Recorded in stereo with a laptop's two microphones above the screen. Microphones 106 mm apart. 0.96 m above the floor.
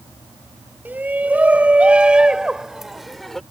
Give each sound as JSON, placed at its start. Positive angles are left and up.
{"t": 0.8, "sound": "a shout", "side_deg": -15}